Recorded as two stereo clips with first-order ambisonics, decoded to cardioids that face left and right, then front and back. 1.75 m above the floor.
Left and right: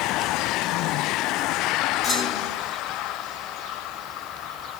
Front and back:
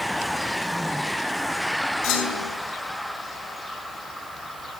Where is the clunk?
20° left, 7.5 m.